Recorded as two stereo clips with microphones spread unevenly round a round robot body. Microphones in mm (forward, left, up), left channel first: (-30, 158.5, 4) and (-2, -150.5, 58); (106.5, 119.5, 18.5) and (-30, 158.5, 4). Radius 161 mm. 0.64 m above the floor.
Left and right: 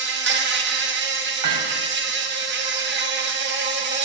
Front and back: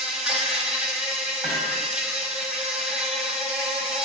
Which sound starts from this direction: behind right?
An insect, at 0.0 s.